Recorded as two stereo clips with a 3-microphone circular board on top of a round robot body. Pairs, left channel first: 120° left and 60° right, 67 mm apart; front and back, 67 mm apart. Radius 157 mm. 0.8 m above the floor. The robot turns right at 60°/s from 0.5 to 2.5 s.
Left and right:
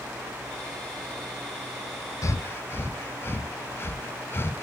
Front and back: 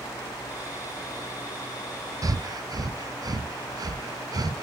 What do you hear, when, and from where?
2.2 s breathing: 155° left, 0.7 m; by 4.6 s 175° left, 0.7 m